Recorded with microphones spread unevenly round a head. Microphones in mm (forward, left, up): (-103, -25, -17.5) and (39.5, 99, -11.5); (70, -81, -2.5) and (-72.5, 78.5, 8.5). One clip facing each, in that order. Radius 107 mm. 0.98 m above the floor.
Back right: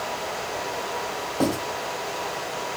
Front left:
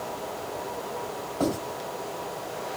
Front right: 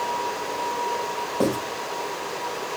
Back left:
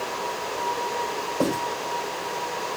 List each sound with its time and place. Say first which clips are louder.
1.4 s writing: back right 3 dB, front right 2 dB; 120° right, 4.5 m